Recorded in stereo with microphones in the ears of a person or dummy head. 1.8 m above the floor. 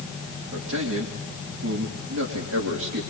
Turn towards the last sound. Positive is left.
turn(degrees=-80)